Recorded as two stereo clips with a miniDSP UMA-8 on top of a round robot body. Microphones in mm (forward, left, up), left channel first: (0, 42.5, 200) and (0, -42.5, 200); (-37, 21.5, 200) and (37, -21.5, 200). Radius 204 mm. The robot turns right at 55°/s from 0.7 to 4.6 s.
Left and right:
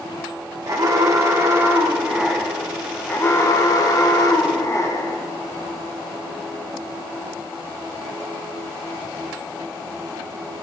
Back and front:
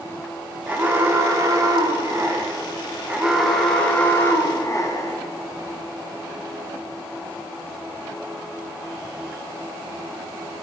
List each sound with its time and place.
0.7 s an alarm: 95° right, 1.3 m; by 5.2 s 120° left, 1.3 m